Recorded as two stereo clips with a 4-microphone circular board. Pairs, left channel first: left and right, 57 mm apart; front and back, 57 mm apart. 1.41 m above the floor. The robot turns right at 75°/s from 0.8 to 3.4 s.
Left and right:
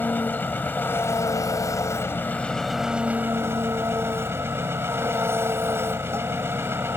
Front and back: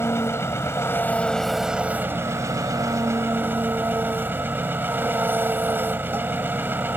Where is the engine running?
35° left; by 7.0 s 130° right.